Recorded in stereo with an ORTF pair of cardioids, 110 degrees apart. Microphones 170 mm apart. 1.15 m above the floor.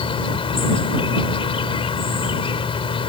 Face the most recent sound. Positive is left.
turn(degrees=30)